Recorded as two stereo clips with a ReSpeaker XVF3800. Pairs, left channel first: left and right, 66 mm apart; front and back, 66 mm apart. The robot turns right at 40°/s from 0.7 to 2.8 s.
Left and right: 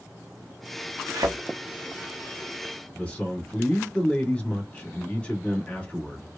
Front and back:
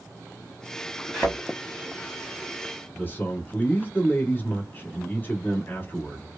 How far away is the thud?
About 1.0 m.